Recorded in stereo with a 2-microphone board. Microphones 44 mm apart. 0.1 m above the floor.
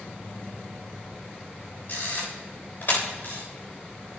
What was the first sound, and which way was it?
A camera shutter, 45° left (ahead or behind).